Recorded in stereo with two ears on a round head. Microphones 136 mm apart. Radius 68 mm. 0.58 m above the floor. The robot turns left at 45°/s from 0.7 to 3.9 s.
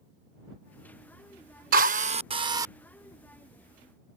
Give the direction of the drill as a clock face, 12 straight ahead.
4 o'clock.